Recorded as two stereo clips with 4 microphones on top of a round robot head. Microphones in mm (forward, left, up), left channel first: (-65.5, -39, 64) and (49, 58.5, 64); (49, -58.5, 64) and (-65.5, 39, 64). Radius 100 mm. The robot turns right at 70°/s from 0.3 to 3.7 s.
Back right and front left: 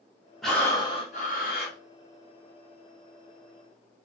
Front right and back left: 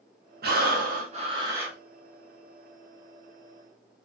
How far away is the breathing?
About 1.1 m.